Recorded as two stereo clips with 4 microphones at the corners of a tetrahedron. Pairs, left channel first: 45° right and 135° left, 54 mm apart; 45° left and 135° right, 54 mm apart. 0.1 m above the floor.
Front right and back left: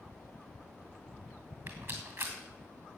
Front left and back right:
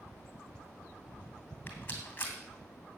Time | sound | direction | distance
1.7 | a rattle | 105° left | 2.5 m